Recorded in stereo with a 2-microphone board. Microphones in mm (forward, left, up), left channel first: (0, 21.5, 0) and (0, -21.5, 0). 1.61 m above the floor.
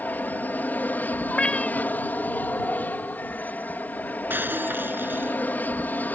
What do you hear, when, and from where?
0.0 s an aircraft: 40° left (ahead or behind)
1.3 s a cat meowing: 25° left (ahead or behind)
4.3 s breaking glass: 50° right (ahead or behind)